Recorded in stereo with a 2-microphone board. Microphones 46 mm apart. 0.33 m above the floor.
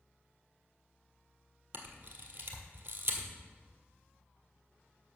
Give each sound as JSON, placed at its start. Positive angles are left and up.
{"t": 1.7, "sound": "a camera shutter", "side_deg": -45, "distance_m": 1.6}